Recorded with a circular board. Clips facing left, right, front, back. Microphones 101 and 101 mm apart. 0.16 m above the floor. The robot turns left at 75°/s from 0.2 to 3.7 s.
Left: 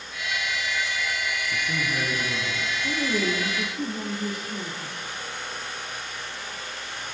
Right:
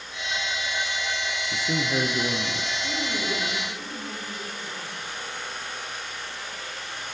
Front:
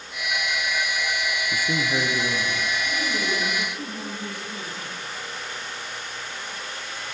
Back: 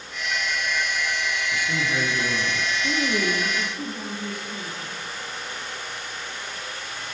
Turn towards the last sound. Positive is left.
turn(degrees=105)